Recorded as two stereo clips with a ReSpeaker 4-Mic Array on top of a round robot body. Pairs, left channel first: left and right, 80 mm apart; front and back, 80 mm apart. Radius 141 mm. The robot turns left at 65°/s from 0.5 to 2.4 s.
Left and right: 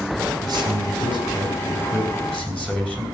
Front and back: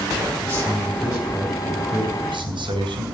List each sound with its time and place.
0.4 s a man speaking: 70° right, 4 m; by 3.0 s 165° left, 4 m